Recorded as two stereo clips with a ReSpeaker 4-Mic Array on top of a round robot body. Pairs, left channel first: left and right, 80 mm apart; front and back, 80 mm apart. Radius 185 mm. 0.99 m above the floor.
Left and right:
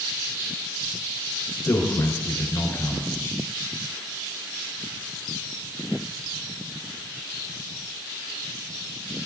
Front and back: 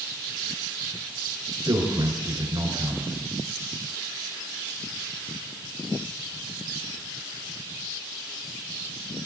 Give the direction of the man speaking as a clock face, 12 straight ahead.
7 o'clock.